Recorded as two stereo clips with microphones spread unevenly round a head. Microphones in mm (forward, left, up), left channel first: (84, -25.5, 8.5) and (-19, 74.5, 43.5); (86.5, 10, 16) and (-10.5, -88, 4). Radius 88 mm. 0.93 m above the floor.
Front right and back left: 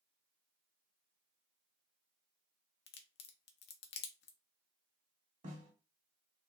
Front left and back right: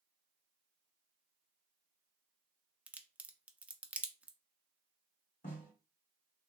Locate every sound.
2.9 s a crack: 55° right, 0.6 m
5.4 s a snare drum: 95° left, 1.8 m